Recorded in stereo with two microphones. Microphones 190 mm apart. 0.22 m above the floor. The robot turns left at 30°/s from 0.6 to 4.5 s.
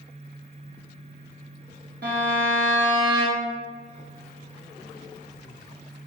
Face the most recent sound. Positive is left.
turn(degrees=-145)